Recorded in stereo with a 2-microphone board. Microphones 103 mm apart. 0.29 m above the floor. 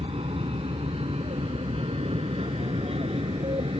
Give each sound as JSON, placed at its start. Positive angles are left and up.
{"t": 0.0, "sound": "an aircraft", "side_deg": -60}